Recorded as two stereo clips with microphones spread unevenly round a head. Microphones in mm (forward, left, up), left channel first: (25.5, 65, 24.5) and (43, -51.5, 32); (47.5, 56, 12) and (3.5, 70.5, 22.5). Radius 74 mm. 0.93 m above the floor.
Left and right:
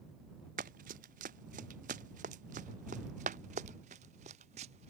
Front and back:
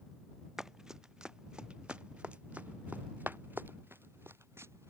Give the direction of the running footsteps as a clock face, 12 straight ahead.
4 o'clock.